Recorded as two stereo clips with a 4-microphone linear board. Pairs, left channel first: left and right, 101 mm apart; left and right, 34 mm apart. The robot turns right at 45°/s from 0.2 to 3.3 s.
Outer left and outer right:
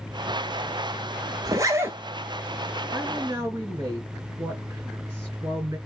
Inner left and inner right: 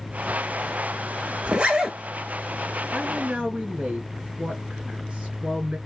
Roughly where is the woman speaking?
Centre.